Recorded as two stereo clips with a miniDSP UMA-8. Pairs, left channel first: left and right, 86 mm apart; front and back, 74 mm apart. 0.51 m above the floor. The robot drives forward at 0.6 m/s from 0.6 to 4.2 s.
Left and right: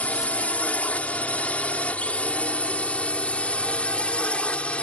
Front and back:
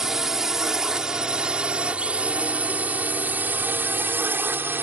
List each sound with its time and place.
0.0 s a drone: 115° left; by 4.8 s 150° left